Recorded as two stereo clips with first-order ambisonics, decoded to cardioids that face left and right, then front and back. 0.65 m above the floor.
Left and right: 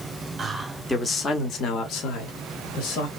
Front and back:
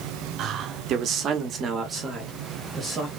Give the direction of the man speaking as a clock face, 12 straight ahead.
5 o'clock.